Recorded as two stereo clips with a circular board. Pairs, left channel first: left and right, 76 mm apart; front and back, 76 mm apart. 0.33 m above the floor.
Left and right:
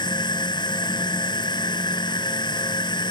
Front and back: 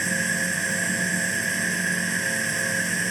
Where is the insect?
90° left.